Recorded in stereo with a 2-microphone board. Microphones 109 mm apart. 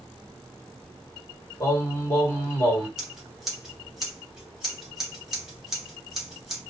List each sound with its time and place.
1.6 s singing: 30° left (ahead or behind), 1.7 m
3.0 s scissors: 5° right (ahead or behind), 1.1 m